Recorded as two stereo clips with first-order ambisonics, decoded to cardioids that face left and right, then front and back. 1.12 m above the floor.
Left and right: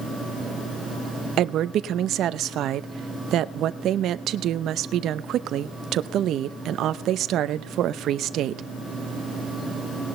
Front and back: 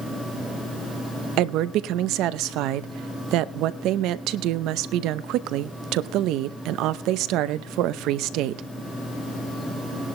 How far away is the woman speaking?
About 0.7 m.